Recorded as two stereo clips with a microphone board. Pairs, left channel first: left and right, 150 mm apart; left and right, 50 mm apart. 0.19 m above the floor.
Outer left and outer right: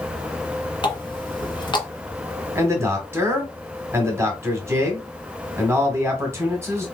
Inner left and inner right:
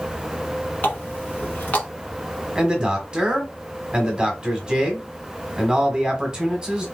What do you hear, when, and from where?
0.8 s a running tap: 35° left (ahead or behind), 1.3 m
2.5 s a man speaking: 20° right (ahead or behind), 1.4 m